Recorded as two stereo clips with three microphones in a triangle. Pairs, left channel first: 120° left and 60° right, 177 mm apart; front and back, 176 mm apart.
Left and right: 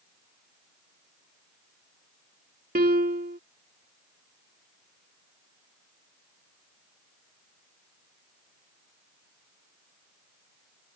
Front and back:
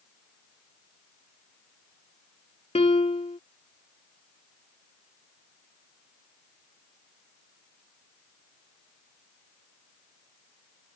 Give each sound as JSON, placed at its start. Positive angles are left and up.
{"t": 2.8, "sound": "a piano", "azimuth_deg": -50}